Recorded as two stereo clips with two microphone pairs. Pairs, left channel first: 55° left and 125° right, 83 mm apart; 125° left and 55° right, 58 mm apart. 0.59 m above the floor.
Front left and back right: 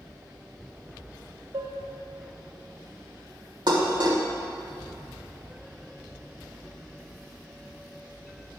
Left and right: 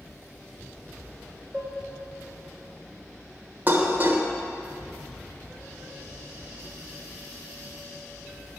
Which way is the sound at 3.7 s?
110° right.